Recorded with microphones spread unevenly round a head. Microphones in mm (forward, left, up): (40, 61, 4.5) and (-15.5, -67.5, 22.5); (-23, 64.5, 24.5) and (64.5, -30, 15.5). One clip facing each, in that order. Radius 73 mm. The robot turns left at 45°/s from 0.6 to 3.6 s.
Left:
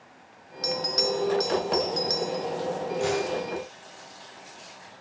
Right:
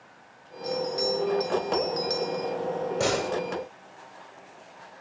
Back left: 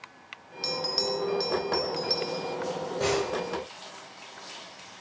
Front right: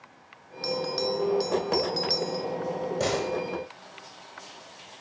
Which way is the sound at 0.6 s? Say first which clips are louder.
Right 1 dB, front right 3 dB; 65° left.